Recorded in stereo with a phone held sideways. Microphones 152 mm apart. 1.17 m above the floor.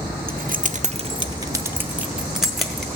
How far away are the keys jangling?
About 0.7 m.